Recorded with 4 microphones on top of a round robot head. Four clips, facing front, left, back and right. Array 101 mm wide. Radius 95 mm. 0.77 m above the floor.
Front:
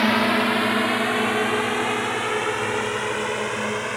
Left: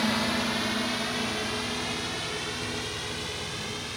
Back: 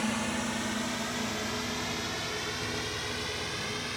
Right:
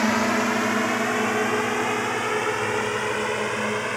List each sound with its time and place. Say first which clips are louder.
0.0 s a drone: right 6 dB, front 12 dB; 30° right; by 4.0 s 50° right